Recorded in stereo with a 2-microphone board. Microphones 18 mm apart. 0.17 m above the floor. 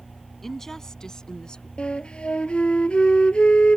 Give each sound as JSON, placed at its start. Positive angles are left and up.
{"t": 0.4, "sound": "a woman speaking", "side_deg": 15}
{"t": 1.8, "sound": "a flute", "side_deg": 75}